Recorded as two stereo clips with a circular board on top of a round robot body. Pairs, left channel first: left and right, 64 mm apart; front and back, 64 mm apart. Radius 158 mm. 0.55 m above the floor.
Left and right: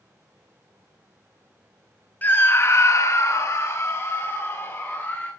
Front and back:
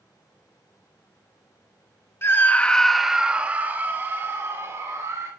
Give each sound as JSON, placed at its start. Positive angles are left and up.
{"t": 2.2, "sound": "a scream", "azimuth_deg": 35, "distance_m": 1.4}